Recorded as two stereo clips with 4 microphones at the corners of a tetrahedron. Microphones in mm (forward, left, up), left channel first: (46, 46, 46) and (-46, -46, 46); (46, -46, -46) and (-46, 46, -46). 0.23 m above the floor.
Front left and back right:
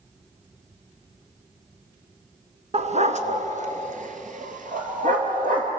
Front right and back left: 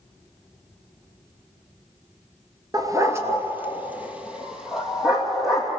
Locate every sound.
2.7 s a dog barking: 165° right, 1.3 m; by 5.7 s 135° right, 3.5 m